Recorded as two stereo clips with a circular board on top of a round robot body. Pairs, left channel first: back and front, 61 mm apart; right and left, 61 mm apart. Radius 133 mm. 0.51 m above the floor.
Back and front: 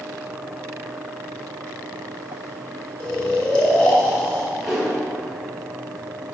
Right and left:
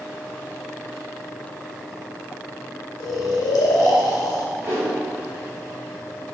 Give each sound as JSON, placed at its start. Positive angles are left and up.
{"t": 3.0, "sound": "snoring", "azimuth_deg": -110, "distance_m": 0.5}
{"t": 4.6, "sound": "a whoosh", "azimuth_deg": 80, "distance_m": 1.5}